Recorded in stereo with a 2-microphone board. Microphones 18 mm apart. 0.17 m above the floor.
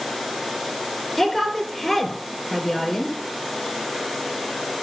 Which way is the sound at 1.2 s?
5° right (ahead or behind).